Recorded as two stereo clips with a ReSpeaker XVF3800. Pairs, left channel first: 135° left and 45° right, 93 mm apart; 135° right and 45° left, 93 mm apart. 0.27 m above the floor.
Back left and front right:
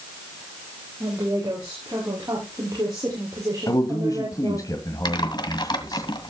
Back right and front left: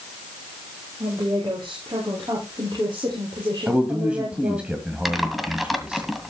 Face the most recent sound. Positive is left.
turn(degrees=135)